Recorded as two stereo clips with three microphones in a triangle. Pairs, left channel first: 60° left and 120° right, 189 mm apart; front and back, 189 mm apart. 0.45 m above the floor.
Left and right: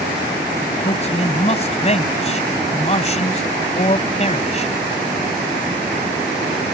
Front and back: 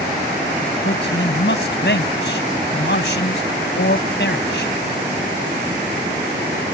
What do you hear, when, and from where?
0.8 s a man speaking: 5° left